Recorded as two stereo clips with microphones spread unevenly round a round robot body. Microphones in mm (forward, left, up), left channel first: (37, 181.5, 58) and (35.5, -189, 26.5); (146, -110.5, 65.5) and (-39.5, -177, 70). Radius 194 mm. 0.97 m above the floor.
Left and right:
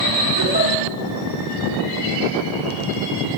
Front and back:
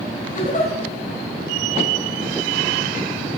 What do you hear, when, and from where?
0.3 s a giggle: 25° right, 7.5 m